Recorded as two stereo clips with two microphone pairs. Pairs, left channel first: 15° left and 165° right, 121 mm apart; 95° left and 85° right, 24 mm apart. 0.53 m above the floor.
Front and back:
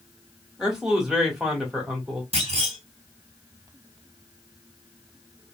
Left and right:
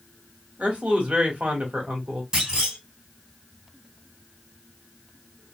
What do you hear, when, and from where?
0.6 s a man speaking: 80° right, 1.6 m
2.3 s a clunk: 140° right, 2.5 m